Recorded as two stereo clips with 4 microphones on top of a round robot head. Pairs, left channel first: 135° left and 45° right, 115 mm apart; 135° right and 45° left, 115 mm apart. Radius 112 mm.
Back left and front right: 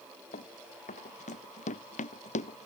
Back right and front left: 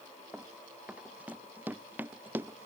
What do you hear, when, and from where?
0.3 s running footsteps: 125° left; by 2.7 s 115° left